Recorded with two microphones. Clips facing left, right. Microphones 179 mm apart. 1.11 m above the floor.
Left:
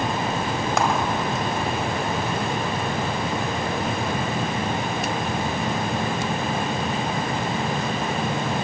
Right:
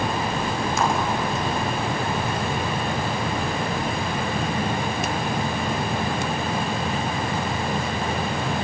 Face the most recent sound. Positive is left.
turn(degrees=80)